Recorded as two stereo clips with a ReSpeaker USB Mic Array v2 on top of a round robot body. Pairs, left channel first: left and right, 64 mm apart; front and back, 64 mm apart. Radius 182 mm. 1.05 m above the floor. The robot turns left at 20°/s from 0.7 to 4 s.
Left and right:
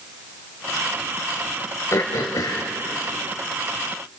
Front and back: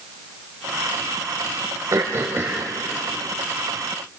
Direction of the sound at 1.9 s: 135° left.